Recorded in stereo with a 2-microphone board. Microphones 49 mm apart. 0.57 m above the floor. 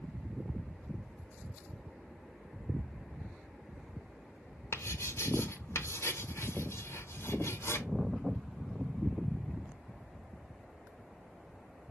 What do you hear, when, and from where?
4.7 s writing: 75° left (ahead or behind), 1.0 m